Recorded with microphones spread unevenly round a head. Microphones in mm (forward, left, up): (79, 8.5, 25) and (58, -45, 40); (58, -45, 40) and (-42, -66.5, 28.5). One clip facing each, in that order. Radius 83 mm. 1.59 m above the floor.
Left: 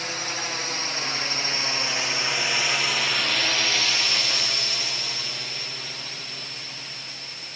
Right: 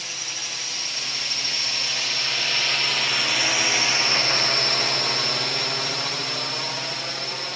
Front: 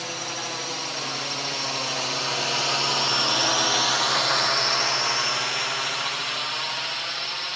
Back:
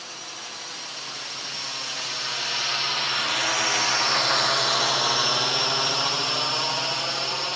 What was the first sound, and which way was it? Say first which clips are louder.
A drone: left 5 dB, front 8 dB; 40° left.